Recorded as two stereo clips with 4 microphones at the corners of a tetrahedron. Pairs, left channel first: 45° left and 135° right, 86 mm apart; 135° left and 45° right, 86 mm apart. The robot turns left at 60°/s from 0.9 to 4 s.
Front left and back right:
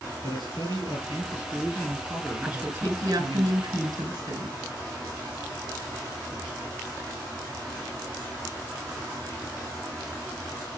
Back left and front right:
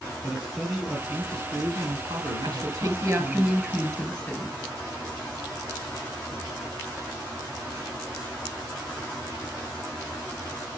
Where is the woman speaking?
55° right, 3.5 m; by 4.6 s 150° right, 3.5 m.